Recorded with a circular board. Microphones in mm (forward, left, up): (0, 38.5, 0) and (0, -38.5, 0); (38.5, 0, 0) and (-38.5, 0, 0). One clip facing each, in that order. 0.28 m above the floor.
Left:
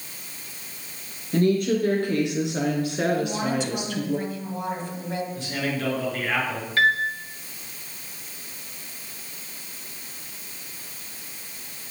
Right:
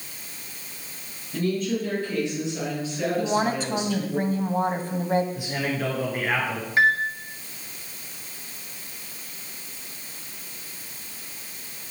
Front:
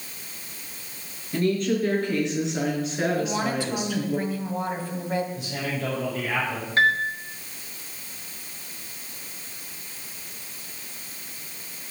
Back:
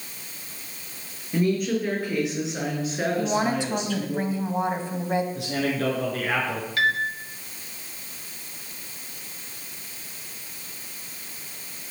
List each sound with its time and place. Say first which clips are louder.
1.3 s a woman speaking: left 5 dB, even; 100° left, 5.5 m; by 4.2 s 80° left, 4 m
3.2 s a woman speaking: right 2 dB, back 2 dB; 115° right, 1.7 m
5.3 s a man speaking: even, back 4 dB; 165° right, 5 m
6.8 s a piano: right 1 dB, front 3 dB; 30° right, 1.7 m